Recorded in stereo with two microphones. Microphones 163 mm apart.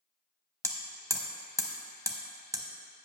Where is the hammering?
20° right (ahead or behind), 0.9 m.